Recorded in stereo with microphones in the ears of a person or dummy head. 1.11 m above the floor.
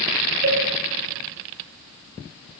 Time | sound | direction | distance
0.4 | a cowbell | 65° right (ahead or behind) | 2.5 m